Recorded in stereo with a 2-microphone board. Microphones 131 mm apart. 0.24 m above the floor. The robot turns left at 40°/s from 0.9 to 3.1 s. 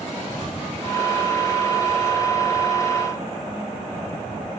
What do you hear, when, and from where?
0.2 s a rattle: 155° left; by 4.5 s 65° left